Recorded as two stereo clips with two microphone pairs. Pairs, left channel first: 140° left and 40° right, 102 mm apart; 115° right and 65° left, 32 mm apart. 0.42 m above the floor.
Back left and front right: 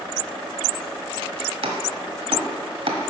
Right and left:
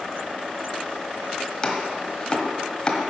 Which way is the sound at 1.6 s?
50° right.